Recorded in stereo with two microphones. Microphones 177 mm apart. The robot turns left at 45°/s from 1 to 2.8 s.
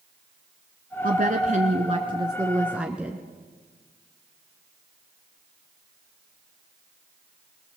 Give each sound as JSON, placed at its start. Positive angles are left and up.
{"t": 1.0, "sound": "a woman speaking", "azimuth_deg": -95, "distance_m": 1.8}